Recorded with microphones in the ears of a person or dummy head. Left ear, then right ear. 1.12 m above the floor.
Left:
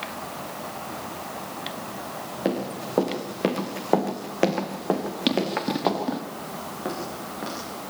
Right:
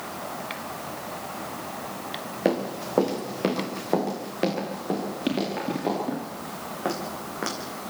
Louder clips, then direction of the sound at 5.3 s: Left 4 dB; 25° left (ahead or behind).